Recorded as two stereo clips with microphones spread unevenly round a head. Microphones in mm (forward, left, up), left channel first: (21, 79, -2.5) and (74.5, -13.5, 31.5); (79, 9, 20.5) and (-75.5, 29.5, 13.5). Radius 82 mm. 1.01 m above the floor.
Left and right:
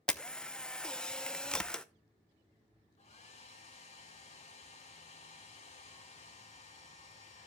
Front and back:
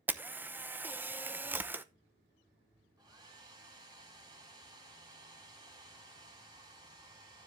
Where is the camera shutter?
120° left, 0.8 m.